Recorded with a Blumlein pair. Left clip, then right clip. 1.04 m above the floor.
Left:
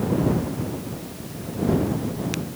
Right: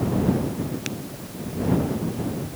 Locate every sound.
Only background noise.